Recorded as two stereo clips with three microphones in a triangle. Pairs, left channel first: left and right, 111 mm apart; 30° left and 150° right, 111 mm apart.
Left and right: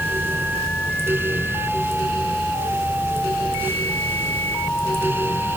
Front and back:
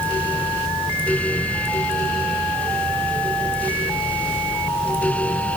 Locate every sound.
Only background noise.